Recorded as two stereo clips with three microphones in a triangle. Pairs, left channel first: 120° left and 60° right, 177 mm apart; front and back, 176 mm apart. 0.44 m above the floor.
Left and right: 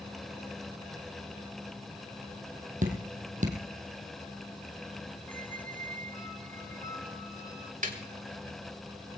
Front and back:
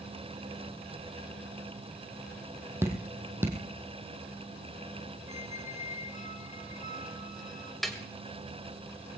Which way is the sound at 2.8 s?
105° right.